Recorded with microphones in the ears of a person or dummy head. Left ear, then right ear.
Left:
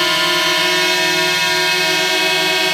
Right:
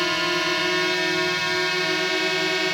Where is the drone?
35° left (ahead or behind).